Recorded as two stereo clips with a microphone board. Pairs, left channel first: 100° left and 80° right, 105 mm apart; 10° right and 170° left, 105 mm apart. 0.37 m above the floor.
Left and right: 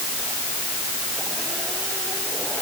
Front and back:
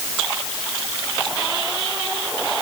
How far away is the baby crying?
No baby crying in this recording.